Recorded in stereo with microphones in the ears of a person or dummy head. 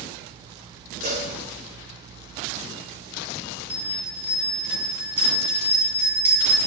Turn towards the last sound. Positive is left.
turn(degrees=-10)  # may be behind; listen again after turning